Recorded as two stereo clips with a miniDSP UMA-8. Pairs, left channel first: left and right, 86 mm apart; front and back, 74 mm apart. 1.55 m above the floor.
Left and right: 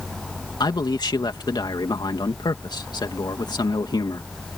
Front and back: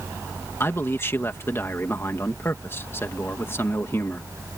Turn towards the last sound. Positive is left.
turn(degrees=55)